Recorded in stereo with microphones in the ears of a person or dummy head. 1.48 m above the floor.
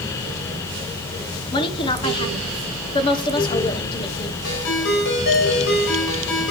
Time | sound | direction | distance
1.5 | a woman speaking | 25° left (ahead or behind) | 1.2 m
4.4 | a ringtone | 80° left | 4 m